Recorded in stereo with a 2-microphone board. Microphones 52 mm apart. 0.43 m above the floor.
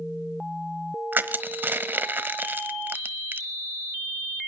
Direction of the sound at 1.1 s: 40° right (ahead or behind).